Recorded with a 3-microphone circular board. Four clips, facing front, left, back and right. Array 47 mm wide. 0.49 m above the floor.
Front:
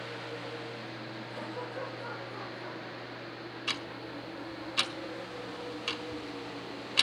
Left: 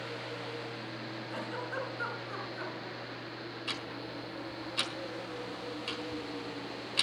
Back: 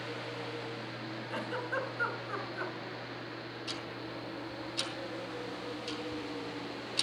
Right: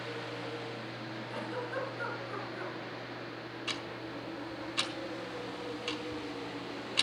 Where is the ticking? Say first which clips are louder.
Right 1 dB, front 6 dB; 5° right, 1.5 m.